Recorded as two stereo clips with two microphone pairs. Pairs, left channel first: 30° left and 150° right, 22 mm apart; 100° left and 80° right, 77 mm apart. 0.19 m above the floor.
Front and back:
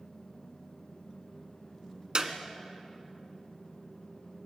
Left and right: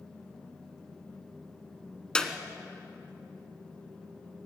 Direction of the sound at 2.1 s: 175° left.